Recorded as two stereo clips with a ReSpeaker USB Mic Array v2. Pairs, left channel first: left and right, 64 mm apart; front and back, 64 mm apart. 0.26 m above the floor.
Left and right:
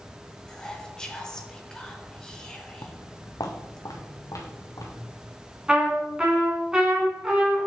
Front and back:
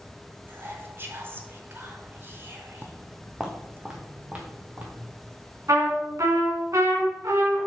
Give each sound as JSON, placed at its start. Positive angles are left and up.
{"t": 0.5, "sound": "whispering", "azimuth_deg": 160, "distance_m": 1.3}
{"t": 2.8, "sound": "footsteps", "azimuth_deg": 75, "distance_m": 0.7}
{"t": 5.7, "sound": "a trumpet", "azimuth_deg": -165, "distance_m": 2.0}